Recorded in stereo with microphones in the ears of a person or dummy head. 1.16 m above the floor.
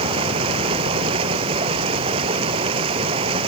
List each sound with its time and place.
0.0 s running water: 30° right (ahead or behind)